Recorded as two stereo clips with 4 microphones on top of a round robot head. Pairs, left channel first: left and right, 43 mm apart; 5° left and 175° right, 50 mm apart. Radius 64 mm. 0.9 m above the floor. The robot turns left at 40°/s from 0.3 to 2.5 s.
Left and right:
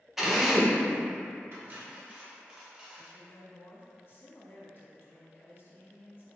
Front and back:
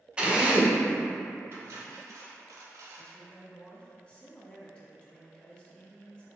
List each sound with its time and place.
0.2 s a drill: 165° right, 0.9 m; by 0.8 s 175° left, 0.9 m
1.5 s cutlery clinking: 125° right, 0.9 m; by 3.2 s 165° right, 0.9 m
3.0 s a woman speaking: 65° left, 1.7 m